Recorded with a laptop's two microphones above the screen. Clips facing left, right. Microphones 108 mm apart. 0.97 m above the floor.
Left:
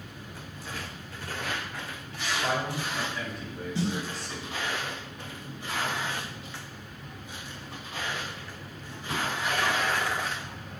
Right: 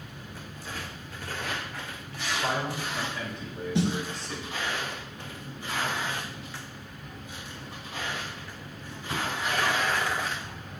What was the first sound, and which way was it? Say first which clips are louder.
A man speaking: even; 20° right (ahead or behind).